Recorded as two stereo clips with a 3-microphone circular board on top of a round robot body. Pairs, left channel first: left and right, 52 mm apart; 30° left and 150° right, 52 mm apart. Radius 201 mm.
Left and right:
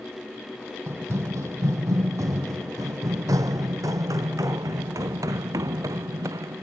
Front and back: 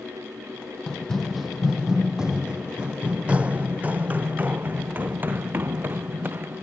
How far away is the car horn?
I don't hear a car horn.